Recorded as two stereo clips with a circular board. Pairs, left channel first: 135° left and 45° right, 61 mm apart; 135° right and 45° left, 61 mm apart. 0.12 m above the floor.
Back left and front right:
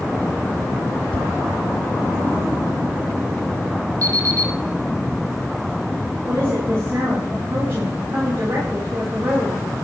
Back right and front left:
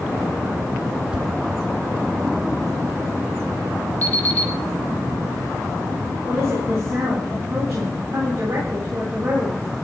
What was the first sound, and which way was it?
A whoosh, 95° left.